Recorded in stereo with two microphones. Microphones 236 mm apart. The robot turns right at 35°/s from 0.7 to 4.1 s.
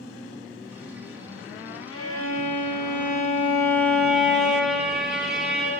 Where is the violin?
105° left, 2.5 m; by 5.7 s 175° right, 2.5 m.